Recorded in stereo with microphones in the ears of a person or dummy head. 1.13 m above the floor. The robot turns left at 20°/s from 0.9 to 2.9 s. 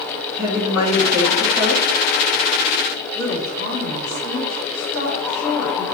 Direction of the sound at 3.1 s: 30° left (ahead or behind).